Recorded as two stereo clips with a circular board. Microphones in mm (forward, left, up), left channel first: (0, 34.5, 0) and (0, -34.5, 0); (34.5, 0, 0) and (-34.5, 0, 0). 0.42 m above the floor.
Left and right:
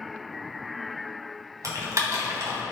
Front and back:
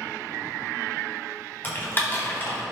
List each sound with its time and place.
1.6 s typing on a keyboard: 55° right, 3 m